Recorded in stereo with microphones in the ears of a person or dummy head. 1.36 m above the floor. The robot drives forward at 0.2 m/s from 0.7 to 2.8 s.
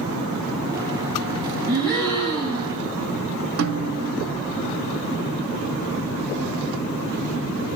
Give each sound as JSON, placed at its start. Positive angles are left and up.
{"t": 1.7, "sound": "a gasp", "side_deg": 15, "distance_m": 6.5}
{"t": 3.6, "sound": "a snare drum", "side_deg": -60, "distance_m": 2.0}